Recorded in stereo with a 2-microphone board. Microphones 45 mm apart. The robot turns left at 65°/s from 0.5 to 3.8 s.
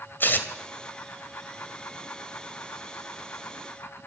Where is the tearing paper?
45° left (ahead or behind), 2 m.